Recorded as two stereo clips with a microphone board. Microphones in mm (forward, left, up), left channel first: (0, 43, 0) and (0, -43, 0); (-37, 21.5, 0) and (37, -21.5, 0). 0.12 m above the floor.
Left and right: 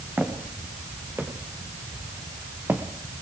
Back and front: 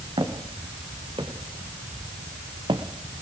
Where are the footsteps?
20° right, 4 m; by 2.9 s 25° right, 2.5 m.